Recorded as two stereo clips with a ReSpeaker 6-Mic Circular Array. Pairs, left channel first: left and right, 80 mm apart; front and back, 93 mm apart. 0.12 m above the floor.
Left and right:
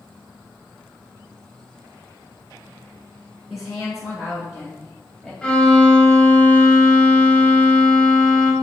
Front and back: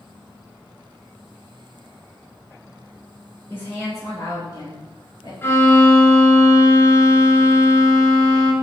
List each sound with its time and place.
3.5 s a woman speaking: 5° right, 1.3 m; by 5.3 s 15° right, 1.9 m
5.4 s a violin: 30° left, 0.6 m